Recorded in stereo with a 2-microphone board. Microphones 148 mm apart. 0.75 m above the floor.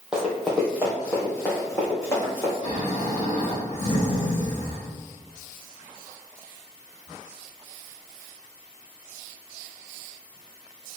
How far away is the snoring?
About 1.2 m.